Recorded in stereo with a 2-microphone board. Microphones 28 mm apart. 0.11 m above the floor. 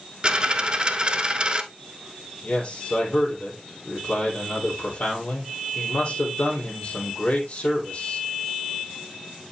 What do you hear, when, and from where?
0.2 s a dropped coin: 30° right (ahead or behind), 0.7 m
2.4 s a man speaking: 50° left (ahead or behind), 2.5 m